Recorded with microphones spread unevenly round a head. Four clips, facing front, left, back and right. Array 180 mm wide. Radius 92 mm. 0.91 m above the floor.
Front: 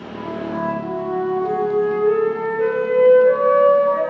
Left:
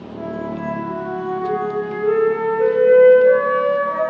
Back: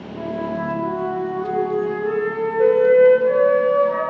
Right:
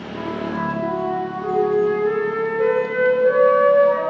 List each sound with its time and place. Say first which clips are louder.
0.1 s a flute: right 1 dB, even; 120° right, 1.5 m